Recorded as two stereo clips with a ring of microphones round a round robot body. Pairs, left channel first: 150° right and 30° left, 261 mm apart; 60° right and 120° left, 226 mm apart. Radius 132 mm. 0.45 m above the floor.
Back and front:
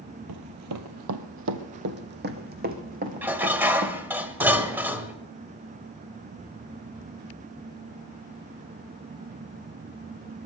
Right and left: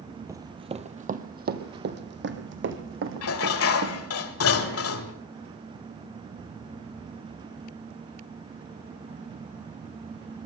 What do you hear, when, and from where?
0.3 s running footsteps: 45° left, 0.9 m; by 4.1 s 95° left, 2.5 m
3.2 s dishes clattering: 55° right, 1.2 m